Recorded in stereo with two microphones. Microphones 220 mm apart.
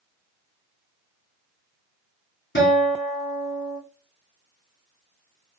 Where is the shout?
No shout in this recording.